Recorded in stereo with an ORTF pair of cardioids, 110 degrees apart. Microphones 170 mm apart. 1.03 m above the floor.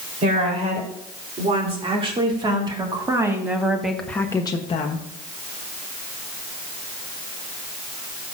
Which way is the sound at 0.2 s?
40° right.